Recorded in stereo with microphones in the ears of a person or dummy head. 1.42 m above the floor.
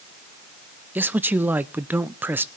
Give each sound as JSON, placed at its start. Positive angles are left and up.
{"t": 0.9, "sound": "a man speaking", "side_deg": -5, "distance_m": 0.5}